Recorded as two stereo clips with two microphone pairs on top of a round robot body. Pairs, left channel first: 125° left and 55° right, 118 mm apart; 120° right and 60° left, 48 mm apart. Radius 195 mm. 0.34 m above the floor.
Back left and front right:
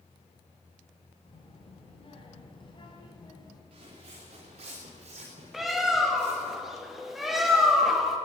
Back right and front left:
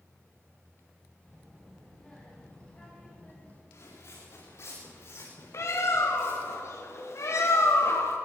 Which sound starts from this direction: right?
Footsteps, at 3.7 s.